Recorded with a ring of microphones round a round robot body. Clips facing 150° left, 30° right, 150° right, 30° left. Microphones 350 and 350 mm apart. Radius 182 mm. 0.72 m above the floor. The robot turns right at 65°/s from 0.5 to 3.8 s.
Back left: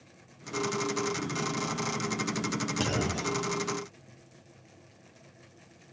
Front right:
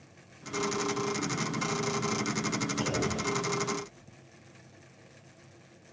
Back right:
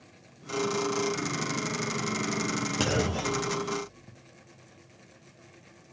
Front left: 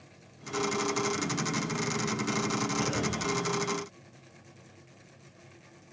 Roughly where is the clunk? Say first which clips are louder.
Back left 1 dB, back right 3 dB; behind.